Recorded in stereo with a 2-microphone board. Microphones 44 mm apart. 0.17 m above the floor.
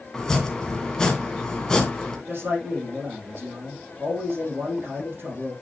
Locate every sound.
0.1 s chopping: 15° left (ahead or behind), 1.8 m
2.3 s a man speaking: 50° right (ahead or behind), 5.5 m